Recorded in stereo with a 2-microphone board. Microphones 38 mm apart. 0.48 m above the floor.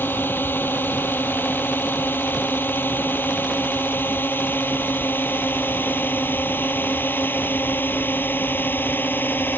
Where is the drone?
70° left (ahead or behind); by 9.6 s 65° left (ahead or behind).